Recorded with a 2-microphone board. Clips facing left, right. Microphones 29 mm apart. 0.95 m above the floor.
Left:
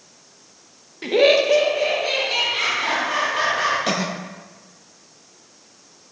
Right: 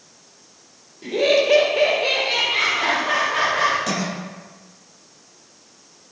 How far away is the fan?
No fan in this recording.